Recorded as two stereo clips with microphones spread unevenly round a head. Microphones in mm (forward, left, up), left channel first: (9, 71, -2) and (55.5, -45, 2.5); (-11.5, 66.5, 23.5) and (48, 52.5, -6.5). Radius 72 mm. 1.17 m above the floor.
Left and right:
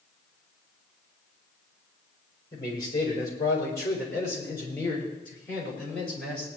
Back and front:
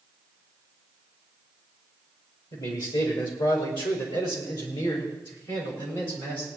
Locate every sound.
2.5 s a man speaking: 175° left, 4.5 m; by 6.5 s 165° right, 5.5 m